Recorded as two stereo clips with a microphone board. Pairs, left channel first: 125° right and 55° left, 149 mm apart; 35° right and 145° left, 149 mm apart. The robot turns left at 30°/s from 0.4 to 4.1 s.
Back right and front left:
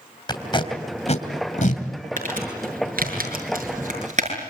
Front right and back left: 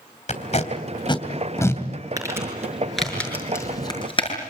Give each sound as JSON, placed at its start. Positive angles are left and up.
{"t": 0.3, "sound": "tape being pulled", "azimuth_deg": -65, "distance_m": 2.5}
{"t": 2.2, "sound": "crumpling", "azimuth_deg": 80, "distance_m": 6.5}